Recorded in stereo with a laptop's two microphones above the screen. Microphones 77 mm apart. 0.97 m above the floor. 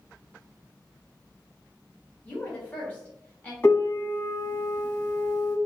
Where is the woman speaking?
20° left (ahead or behind), 1.3 m.